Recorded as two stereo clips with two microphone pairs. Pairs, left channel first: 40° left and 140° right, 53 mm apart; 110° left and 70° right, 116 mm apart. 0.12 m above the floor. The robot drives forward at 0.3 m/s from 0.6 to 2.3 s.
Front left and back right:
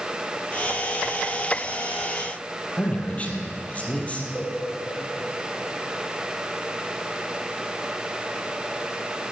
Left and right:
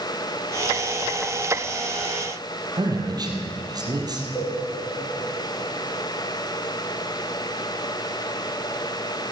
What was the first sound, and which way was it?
A man speaking, 20° right.